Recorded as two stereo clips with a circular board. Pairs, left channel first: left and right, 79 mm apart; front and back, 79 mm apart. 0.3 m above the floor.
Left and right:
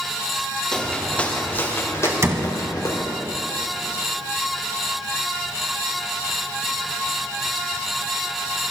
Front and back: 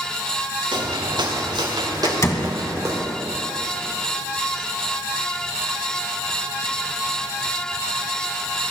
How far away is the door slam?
About 1.4 m.